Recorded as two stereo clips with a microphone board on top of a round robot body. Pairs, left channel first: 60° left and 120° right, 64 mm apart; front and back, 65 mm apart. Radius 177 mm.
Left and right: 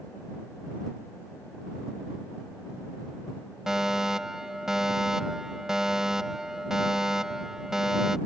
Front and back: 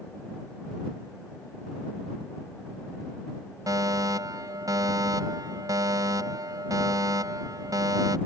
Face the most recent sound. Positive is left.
turn(degrees=155)